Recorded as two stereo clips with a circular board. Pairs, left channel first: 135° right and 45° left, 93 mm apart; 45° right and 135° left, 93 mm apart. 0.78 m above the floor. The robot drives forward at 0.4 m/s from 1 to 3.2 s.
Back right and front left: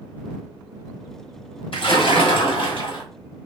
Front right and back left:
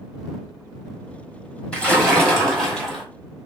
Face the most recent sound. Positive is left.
turn(degrees=-135)